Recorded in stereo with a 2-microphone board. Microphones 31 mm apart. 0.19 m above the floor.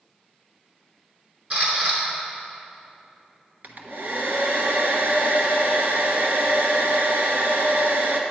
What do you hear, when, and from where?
1.5 s a camera shutter: 55° right (ahead or behind), 3 m
3.6 s a hair dryer: 65° right (ahead or behind), 1.1 m